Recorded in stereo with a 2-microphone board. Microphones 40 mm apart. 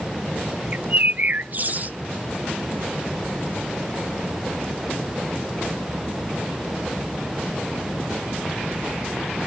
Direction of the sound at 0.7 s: 45° right (ahead or behind).